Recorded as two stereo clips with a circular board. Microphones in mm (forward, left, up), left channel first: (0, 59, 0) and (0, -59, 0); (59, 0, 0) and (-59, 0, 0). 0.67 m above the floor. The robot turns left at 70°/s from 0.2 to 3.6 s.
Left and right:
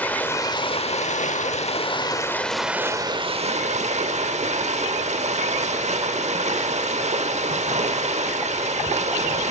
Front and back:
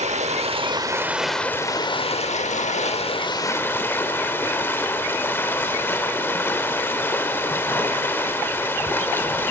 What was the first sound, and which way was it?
Running water, 165° left.